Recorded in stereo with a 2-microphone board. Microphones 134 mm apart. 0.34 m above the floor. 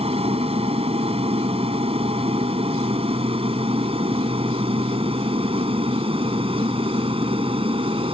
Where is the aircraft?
45° right (ahead or behind); by 8.1 s 40° right (ahead or behind).